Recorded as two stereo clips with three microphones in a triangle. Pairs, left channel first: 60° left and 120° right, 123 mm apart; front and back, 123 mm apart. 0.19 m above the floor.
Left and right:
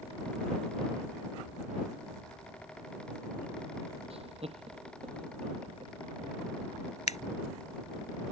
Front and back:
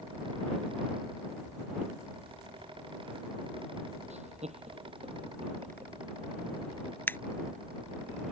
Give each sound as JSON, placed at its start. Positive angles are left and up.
{"t": 4.1, "sound": "laughter", "azimuth_deg": -155}
{"t": 7.1, "sound": "scissors", "azimuth_deg": 75}